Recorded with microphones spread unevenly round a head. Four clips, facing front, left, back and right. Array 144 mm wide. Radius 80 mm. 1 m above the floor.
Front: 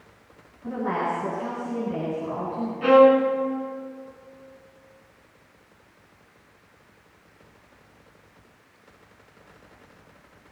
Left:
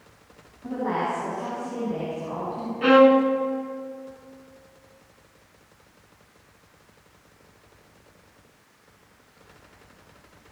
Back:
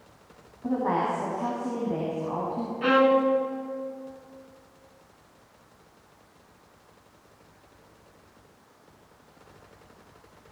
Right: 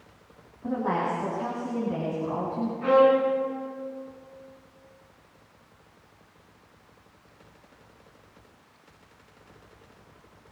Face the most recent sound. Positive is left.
turn(degrees=100)